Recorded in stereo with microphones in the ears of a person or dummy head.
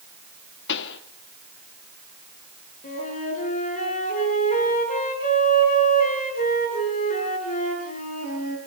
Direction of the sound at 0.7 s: 60° left (ahead or behind).